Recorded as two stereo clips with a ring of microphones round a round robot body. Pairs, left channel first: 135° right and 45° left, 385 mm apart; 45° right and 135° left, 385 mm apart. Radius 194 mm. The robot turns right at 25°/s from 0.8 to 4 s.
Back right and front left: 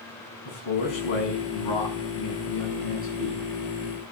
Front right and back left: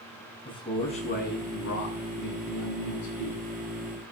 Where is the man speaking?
125° right, 7 m; by 3.4 s 55° right, 7 m.